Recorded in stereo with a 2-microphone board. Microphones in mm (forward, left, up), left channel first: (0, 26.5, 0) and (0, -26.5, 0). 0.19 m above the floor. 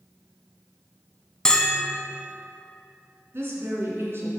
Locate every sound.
1.4 s a bell: 15° left (ahead or behind), 0.8 m
3.3 s a woman speaking: 50° right (ahead or behind), 2.5 m